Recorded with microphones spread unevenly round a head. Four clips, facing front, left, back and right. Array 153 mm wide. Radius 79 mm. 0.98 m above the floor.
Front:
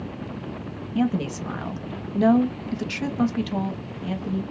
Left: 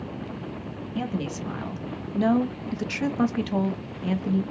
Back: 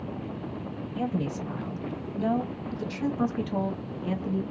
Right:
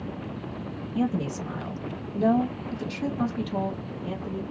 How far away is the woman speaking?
About 1.5 m.